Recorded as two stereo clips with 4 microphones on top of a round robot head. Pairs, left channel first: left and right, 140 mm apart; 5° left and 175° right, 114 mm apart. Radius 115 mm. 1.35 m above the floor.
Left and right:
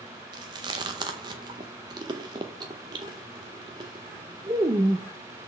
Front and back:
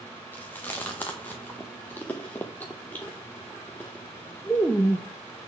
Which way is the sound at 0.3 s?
65° right.